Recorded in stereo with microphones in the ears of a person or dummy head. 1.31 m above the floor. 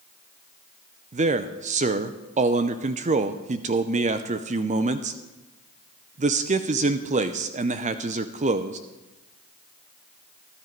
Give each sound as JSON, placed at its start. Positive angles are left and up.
{"t": 1.1, "sound": "a man speaking", "side_deg": -30, "distance_m": 0.7}